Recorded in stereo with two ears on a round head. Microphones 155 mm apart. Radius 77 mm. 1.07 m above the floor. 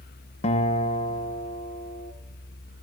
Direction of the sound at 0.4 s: 35° left (ahead or behind).